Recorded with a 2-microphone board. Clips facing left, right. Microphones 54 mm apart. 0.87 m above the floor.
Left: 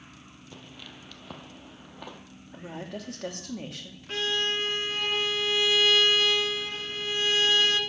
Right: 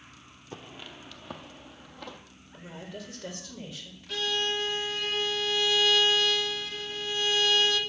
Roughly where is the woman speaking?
Left.